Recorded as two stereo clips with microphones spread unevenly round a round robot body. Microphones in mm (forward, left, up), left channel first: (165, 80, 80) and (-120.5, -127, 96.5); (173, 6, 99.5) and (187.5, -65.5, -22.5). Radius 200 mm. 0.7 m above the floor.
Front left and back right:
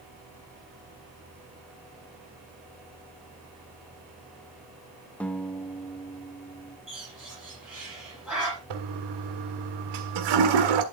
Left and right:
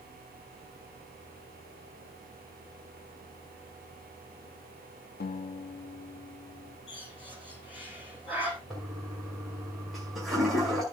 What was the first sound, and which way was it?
A guitar, 120° left.